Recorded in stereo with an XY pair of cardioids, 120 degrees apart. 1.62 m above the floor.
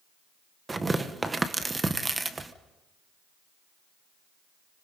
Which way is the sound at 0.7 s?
20° right.